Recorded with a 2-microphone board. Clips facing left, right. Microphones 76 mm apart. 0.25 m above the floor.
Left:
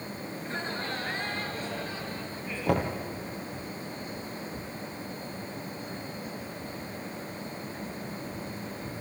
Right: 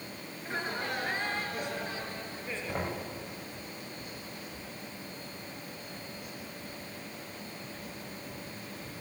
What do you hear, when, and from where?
0.4 s laughter: 5° right (ahead or behind), 4 m; by 3.0 s 20° right (ahead or behind), 5.5 m
2.7 s knocking: 70° left (ahead or behind), 3.5 m